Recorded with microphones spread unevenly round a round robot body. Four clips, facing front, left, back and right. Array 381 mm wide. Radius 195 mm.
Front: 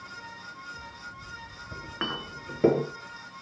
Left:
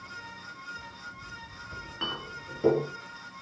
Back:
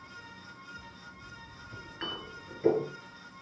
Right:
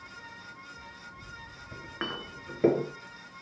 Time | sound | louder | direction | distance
1.7 | a clink | right 1 dB, front 6 dB | 20° right | 4 m